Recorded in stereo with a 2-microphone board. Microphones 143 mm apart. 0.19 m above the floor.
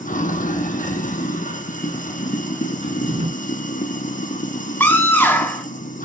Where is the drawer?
45° right (ahead or behind), 1.2 m.